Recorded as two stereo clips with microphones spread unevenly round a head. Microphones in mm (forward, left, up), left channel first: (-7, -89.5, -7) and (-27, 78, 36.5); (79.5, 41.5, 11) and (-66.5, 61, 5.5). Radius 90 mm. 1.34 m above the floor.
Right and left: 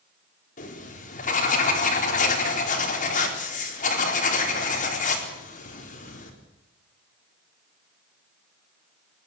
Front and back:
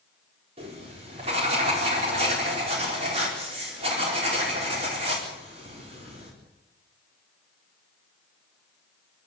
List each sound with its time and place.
0.6 s writing: 130° right, 4 m